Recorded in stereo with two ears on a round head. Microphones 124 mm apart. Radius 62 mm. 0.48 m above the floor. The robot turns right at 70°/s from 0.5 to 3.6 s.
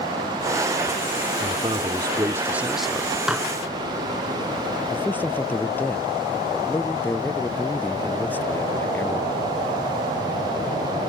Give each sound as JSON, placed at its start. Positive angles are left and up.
{"t": 1.4, "sound": "a man speaking", "azimuth_deg": -105}
{"t": 3.3, "sound": "dishes clattering", "side_deg": -5}
{"t": 4.9, "sound": "a man speaking", "side_deg": 15}